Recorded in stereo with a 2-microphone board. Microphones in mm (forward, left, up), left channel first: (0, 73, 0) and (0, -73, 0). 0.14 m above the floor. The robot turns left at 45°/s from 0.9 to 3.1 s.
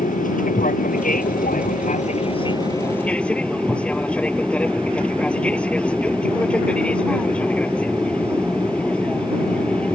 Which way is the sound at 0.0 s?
105° left.